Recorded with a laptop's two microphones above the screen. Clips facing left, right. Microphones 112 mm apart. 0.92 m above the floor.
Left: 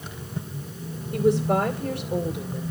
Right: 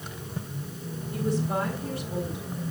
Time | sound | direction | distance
1.1 | a woman speaking | 75° left (ahead or behind) | 3 m